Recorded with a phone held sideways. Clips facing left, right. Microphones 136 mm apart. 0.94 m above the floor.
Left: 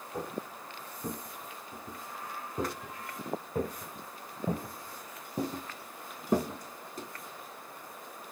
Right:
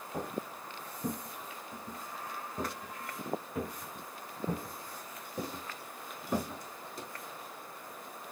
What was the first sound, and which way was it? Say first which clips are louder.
Footsteps: even; 15° right (ahead or behind).